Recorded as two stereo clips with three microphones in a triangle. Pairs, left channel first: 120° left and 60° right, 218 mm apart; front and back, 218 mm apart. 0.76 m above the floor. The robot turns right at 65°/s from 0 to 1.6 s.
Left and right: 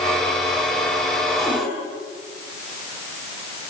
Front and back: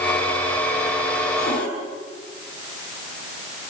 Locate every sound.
1.4 s a cupboard door: 15° left, 7.5 m; by 1.7 s 30° left, 7.5 m